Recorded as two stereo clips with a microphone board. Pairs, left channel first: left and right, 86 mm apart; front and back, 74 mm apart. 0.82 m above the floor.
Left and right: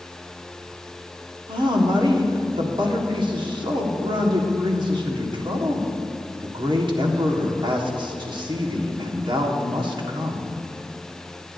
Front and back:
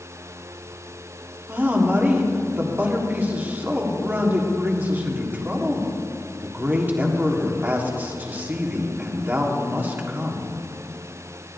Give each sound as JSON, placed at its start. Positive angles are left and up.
{"t": 1.5, "sound": "a woman speaking", "azimuth_deg": -115, "distance_m": 1.5}